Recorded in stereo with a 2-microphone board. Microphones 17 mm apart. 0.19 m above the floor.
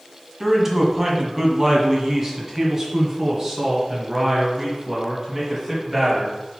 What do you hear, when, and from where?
0.4 s a man speaking: 20° right (ahead or behind), 1.6 m; by 6.4 s 30° right (ahead or behind), 4 m